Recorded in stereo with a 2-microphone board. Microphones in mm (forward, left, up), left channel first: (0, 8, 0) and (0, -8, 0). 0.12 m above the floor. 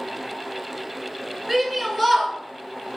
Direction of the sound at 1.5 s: 5° right (ahead or behind).